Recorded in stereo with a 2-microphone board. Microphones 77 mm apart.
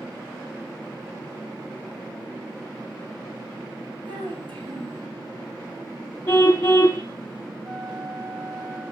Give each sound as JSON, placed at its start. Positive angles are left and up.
{"t": 4.0, "sound": "a child speaking", "side_deg": -80, "distance_m": 8.0}
{"t": 6.3, "sound": "a car horn", "side_deg": 30, "distance_m": 3.5}
{"t": 7.6, "sound": "a flute", "side_deg": -60, "distance_m": 7.5}